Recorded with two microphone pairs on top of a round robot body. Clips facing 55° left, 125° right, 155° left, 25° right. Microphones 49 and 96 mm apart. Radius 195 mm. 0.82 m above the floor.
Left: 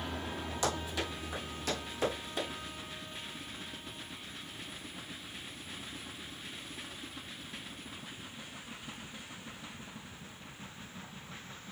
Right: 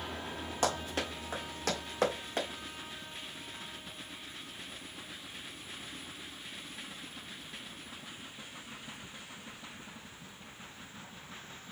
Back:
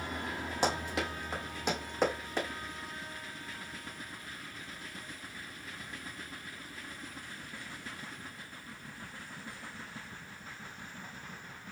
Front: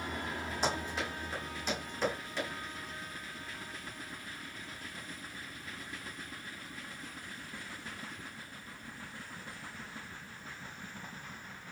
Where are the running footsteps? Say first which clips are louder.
Right 2 dB, back 3 dB; 175° right, 1.7 m; by 2.5 s 160° right, 3.5 m.